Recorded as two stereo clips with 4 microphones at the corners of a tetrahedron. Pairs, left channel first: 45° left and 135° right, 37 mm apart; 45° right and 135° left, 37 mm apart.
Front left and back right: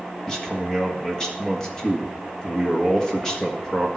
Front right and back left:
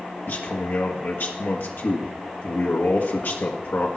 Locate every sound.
0.3 s a man speaking: 30° right, 1.5 m